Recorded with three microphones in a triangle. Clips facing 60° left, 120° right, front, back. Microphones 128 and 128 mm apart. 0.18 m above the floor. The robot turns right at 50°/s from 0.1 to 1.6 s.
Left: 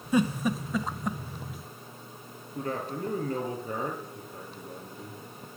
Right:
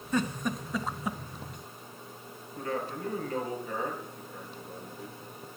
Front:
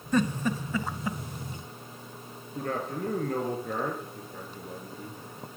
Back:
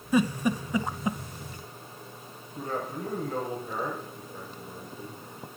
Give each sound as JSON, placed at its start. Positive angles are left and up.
{"t": 0.1, "sound": "a giggle", "azimuth_deg": 115, "distance_m": 0.6}
{"t": 2.5, "sound": "a man speaking", "azimuth_deg": 10, "distance_m": 4.0}